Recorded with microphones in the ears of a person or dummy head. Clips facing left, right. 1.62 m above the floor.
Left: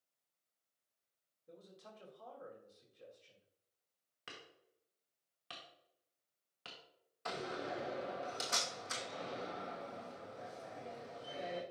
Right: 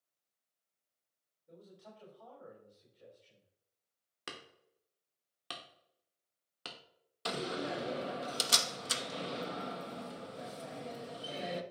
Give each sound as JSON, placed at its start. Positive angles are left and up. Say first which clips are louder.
{"t": 1.5, "sound": "a man speaking", "louder": "right 2 dB", "side_deg": 50, "distance_m": 3.0}
{"t": 4.3, "sound": "hammering", "louder": "right 6 dB", "side_deg": -65, "distance_m": 1.1}
{"t": 7.2, "sound": "a door slam", "louder": "right 5 dB", "side_deg": -45, "distance_m": 1.0}